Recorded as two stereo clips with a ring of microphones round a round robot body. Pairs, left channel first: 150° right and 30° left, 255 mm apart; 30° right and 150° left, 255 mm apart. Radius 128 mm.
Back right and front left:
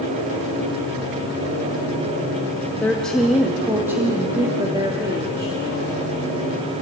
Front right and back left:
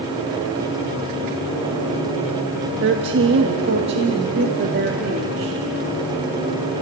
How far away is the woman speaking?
About 1.4 m.